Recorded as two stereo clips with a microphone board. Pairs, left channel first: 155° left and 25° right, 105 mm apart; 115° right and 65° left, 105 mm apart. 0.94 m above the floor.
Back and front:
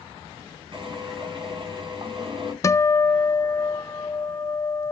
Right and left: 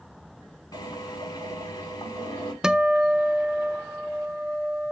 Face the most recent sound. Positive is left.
turn(degrees=145)